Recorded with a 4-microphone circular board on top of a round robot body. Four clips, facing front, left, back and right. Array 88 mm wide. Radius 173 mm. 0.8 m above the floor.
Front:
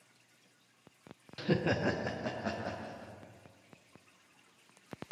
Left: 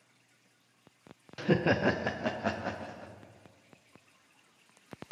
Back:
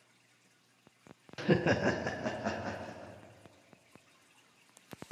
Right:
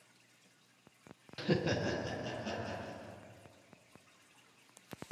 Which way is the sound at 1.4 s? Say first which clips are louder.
Left 6 dB, back 3 dB; 140° left.